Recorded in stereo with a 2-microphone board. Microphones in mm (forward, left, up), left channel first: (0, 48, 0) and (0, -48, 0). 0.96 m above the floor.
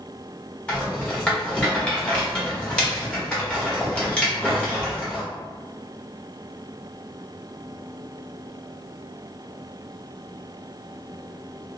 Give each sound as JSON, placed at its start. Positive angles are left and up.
{"t": 0.7, "sound": "a rattle", "side_deg": 10, "distance_m": 1.1}